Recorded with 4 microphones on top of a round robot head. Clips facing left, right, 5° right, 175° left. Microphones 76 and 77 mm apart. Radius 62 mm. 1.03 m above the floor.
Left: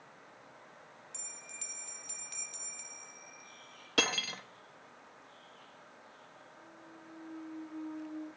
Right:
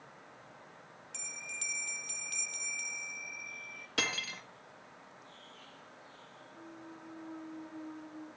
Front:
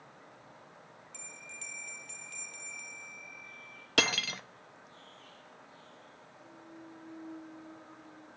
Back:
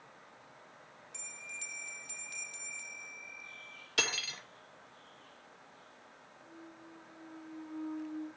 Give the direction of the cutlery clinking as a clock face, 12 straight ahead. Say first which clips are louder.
Left 4 dB, front 6 dB; 11 o'clock.